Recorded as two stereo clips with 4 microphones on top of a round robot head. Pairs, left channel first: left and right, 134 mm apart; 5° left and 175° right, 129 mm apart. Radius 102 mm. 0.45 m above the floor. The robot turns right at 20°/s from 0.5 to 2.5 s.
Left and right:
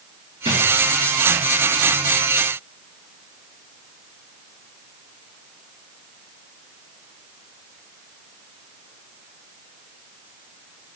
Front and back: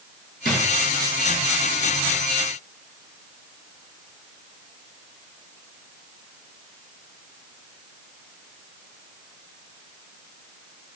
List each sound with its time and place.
0.5 s a drawer: 145° right, 2 m; by 0.6 s 140° right, 2 m